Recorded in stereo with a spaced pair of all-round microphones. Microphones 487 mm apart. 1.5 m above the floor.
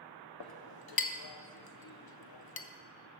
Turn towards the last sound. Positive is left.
turn(degrees=55)  # may be behind; listen again after turning